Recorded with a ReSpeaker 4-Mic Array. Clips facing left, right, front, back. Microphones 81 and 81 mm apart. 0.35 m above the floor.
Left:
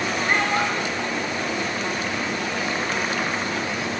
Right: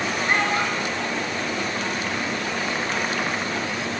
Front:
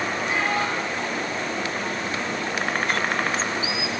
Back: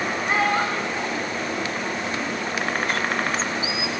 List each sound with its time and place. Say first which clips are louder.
0.3 s a child speaking: even, back 4 dB; 175° right, 1.5 m; by 2.3 s 170° left, 2.5 m